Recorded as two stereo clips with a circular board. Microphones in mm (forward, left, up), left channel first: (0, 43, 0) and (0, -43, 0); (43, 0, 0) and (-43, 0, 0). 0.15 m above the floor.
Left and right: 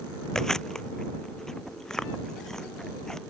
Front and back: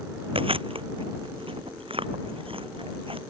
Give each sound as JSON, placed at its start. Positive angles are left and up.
{"t": 0.3, "sound": "chewing", "azimuth_deg": 175}